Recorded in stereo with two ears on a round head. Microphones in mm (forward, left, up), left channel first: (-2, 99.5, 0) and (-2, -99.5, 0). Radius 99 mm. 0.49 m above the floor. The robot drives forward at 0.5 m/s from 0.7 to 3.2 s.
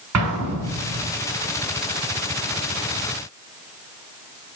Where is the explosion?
75° right (ahead or behind), 4.5 m.